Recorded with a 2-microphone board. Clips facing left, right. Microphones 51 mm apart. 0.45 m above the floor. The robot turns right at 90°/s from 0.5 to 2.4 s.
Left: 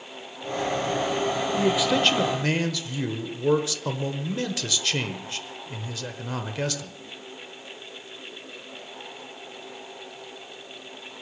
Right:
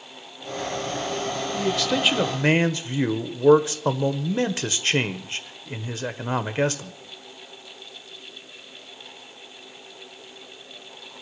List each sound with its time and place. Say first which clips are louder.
1.6 s a man speaking: left 1 dB; 145° left, 1.2 m; by 6.9 s 140° right, 1.2 m